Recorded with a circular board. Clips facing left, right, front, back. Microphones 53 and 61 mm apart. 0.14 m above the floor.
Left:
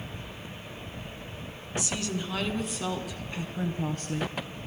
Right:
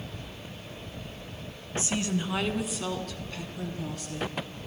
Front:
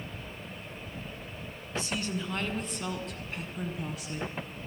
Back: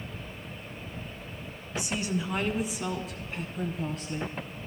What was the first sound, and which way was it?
A woman speaking, 120° right.